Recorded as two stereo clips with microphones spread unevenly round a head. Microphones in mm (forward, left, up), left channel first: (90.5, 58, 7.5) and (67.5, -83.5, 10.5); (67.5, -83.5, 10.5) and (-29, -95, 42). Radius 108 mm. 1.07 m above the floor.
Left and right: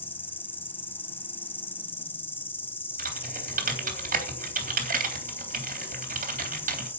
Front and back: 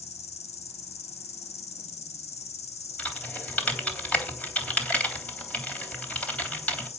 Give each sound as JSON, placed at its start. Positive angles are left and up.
{"t": 0.0, "sound": "an insect", "azimuth_deg": 5, "distance_m": 1.7}
{"t": 3.0, "sound": "typing on a keyboard", "azimuth_deg": -75, "distance_m": 3.5}